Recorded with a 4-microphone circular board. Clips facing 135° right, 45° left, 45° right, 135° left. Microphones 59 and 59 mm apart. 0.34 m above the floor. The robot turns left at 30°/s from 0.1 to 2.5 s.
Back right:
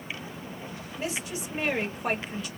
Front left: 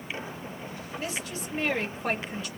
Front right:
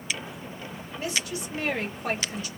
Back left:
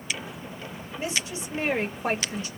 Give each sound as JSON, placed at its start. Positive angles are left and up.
{"t": 1.0, "sound": "a woman speaking", "azimuth_deg": 175, "distance_m": 1.5}